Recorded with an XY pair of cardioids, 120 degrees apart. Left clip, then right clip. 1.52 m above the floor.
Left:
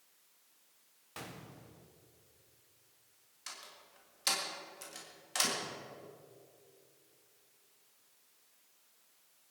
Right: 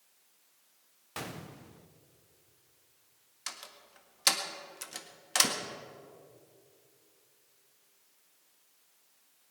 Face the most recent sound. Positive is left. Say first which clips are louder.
# right 5 dB
turn(degrees=-45)